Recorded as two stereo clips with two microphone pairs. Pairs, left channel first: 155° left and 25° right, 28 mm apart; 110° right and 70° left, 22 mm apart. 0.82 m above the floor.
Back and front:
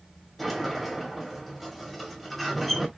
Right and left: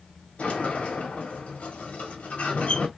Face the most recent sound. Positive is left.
turn(degrees=-115)